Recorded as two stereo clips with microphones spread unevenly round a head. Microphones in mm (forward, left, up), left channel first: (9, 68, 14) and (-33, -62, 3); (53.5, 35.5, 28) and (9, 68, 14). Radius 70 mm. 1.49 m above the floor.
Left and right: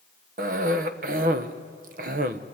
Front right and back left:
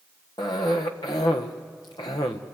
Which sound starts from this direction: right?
A cough, at 0.4 s.